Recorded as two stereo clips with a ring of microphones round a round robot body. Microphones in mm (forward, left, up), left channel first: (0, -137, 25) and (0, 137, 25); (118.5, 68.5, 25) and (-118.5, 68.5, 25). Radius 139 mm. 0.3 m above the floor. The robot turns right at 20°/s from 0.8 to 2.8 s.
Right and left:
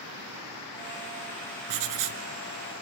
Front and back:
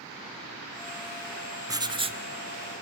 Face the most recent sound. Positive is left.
turn(degrees=125)